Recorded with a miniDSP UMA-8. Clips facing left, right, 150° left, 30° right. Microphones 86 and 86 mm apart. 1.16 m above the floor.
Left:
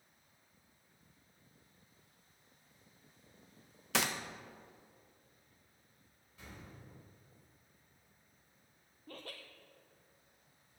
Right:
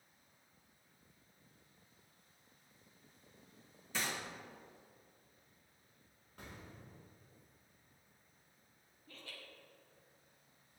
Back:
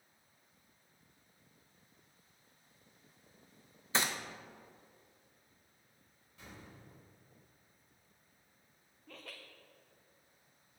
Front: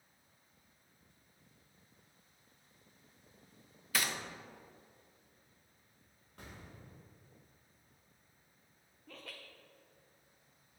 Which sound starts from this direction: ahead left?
Laughter, at 9.1 s.